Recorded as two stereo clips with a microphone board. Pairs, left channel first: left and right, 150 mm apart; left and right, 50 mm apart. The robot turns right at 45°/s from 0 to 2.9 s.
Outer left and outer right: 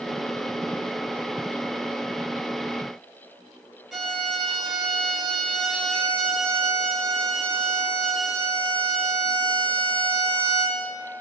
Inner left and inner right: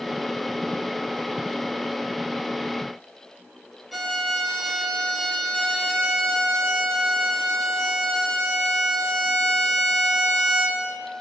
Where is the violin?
Centre (ahead or behind), 3.5 m.